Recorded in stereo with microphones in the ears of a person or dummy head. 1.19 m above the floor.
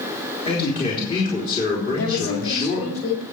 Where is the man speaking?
30° left (ahead or behind), 4 m.